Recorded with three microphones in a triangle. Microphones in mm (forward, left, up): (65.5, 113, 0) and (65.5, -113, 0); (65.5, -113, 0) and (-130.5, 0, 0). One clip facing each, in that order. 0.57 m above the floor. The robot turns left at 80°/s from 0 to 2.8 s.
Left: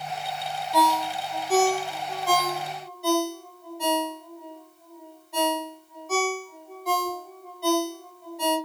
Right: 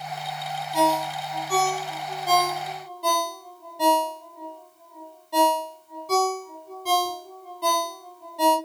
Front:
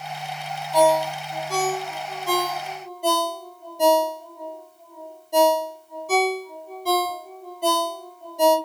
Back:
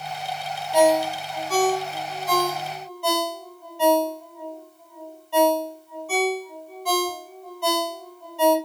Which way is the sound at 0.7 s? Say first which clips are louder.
Right 1 dB, back 1 dB; 85° left.